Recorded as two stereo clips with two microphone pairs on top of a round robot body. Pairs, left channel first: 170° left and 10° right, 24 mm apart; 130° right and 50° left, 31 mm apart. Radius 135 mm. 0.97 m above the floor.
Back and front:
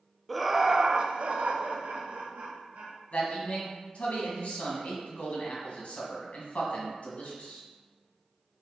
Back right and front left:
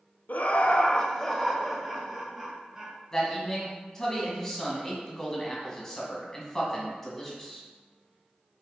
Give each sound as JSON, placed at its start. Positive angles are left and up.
{"t": 0.3, "sound": "laughter", "azimuth_deg": -105, "distance_m": 0.6}
{"t": 3.1, "sound": "a man speaking", "azimuth_deg": 160, "distance_m": 1.9}